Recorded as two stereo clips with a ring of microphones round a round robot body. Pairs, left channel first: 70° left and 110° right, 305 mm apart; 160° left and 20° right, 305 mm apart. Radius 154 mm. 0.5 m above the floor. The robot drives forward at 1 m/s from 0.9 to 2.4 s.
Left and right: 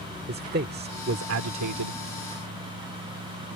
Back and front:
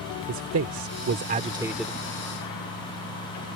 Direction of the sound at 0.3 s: 60° right.